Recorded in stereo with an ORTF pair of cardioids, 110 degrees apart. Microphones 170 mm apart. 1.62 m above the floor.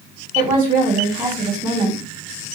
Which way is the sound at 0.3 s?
30° right.